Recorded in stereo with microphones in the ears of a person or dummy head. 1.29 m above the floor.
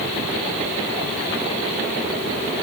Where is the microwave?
I don't hear a microwave.